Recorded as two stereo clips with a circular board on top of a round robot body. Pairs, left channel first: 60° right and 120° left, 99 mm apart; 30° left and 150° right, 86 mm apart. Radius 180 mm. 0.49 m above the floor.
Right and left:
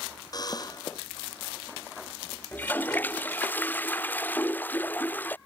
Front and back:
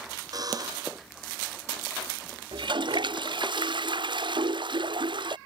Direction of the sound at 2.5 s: 130° right.